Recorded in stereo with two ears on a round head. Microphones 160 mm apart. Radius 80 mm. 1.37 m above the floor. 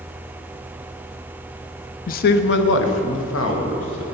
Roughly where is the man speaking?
Left.